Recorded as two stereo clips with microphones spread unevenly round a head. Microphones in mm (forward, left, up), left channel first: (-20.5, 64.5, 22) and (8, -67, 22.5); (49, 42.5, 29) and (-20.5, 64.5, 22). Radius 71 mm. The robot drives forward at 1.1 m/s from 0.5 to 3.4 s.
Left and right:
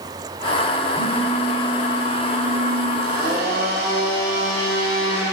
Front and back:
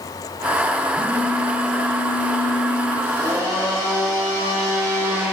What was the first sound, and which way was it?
A phone buzzing, 45° right.